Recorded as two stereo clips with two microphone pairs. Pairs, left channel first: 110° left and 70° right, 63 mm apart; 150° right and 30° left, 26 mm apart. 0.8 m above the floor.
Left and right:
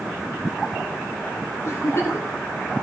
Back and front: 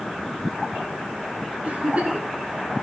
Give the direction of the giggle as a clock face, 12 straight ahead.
10 o'clock.